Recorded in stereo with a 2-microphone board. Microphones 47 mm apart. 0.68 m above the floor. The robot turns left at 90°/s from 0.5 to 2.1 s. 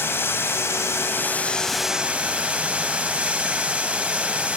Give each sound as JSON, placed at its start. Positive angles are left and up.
{"t": 0.0, "sound": "running water", "azimuth_deg": 115, "distance_m": 0.9}